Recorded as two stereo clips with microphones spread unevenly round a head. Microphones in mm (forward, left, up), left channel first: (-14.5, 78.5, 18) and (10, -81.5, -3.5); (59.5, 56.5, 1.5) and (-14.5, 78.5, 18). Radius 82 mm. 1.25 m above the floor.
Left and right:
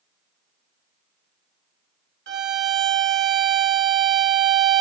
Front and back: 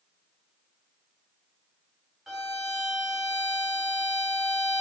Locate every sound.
2.3 s a violin: 110° right, 2.0 m